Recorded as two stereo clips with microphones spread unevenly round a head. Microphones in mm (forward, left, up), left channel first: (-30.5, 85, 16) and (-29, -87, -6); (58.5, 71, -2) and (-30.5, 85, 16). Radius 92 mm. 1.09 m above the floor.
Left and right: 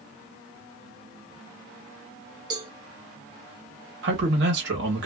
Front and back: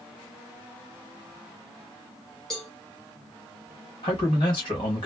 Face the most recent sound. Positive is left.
turn(degrees=-60)